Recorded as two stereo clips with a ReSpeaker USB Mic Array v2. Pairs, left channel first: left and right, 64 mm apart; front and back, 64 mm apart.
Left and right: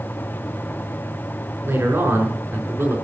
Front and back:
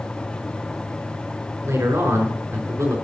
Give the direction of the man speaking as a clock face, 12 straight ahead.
5 o'clock.